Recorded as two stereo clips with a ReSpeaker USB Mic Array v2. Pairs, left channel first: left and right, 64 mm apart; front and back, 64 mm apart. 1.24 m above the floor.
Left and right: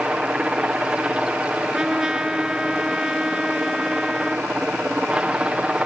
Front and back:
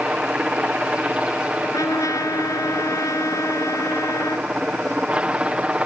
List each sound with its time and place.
0.0 s a helicopter: 140° right
1.6 s a trumpet: 15° right